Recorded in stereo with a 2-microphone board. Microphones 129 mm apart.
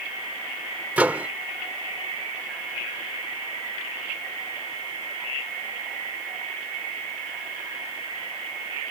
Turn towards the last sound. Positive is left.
turn(degrees=-10)  # may be behind; listen again after turning